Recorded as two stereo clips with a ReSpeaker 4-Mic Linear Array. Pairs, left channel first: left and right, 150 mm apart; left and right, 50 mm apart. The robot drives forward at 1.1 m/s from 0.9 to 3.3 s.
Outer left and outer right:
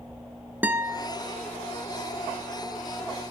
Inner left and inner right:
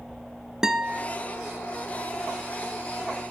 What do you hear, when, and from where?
0.6 s a guitar: 15° right (ahead or behind), 1.0 m; by 1.1 s 10° right (ahead or behind), 1.2 m